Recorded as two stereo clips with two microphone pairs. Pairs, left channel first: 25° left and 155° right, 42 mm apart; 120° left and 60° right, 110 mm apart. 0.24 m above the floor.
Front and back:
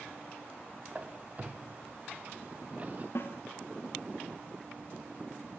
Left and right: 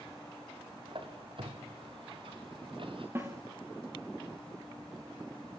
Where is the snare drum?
10° left, 4 m.